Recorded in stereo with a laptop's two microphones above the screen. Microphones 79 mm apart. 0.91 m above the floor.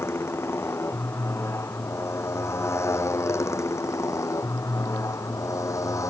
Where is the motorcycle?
30° left (ahead or behind); by 6.1 s 40° left (ahead or behind).